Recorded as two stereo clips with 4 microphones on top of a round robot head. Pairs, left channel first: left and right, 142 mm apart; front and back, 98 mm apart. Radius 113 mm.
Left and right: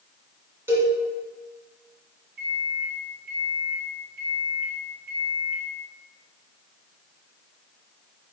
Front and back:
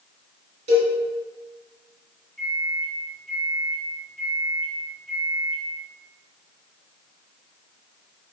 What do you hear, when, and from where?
0.7 s a cowbell: 165° right, 2.5 m
2.4 s a microwave: 85° right, 1.6 m